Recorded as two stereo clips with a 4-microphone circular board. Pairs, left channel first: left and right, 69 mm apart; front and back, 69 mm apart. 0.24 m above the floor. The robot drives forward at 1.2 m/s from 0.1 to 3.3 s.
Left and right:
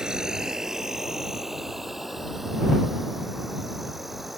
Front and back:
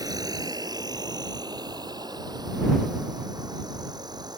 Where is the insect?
170° right; by 4.4 s 175° right.